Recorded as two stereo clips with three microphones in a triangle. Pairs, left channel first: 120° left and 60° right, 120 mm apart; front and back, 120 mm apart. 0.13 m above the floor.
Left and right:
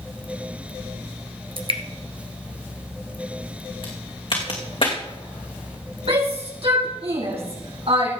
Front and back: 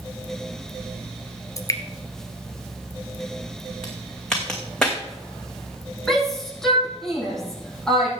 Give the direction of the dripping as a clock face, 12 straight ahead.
2 o'clock.